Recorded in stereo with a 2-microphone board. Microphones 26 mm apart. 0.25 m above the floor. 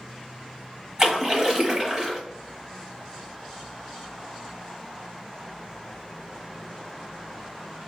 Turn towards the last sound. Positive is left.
turn(degrees=-30)  # may be behind; listen again after turning